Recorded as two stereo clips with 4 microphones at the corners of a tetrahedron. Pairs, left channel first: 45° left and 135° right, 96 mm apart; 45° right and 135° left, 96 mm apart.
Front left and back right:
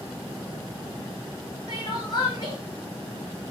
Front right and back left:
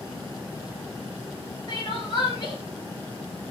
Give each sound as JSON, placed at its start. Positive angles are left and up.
{"t": 1.7, "sound": "crying", "azimuth_deg": 0, "distance_m": 6.0}